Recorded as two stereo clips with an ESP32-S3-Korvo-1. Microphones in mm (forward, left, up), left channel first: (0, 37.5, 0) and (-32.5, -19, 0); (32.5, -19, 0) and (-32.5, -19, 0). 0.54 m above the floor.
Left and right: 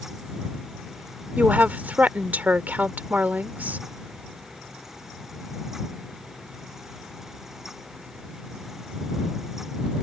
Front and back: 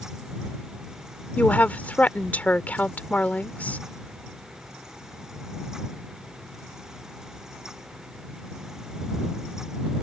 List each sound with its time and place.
1.4 s a woman speaking: 60° right